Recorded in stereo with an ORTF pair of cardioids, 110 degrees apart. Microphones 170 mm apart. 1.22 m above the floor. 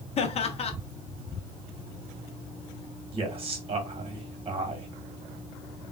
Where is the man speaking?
35° right, 1.2 m.